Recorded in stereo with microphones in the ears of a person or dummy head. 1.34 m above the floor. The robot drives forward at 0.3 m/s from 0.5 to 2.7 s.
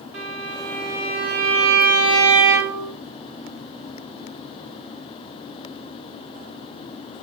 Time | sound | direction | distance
0.1 | a violin | 60° right (ahead or behind) | 4.5 m